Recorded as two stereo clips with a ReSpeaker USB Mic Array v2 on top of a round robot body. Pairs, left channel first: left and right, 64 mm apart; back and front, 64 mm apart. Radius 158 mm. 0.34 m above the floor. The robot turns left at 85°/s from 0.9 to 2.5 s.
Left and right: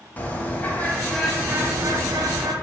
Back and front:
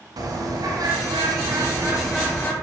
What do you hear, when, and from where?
0.2 s a bird: 25° left, 1.3 m; by 2.5 s 115° right, 1.3 m